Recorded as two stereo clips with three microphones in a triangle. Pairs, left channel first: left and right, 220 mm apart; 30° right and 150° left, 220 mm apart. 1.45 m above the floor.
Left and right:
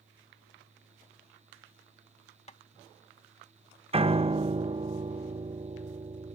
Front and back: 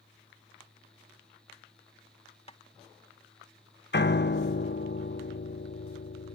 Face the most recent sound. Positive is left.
turn(degrees=-30)